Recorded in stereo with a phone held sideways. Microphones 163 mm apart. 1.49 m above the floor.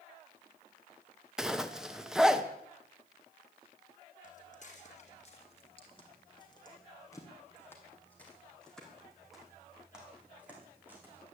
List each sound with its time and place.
1.4 s a zipper: 5° right (ahead or behind), 1.0 m
4.2 s footsteps: 50° left (ahead or behind), 3.5 m; by 11.2 s 15° right (ahead or behind), 5 m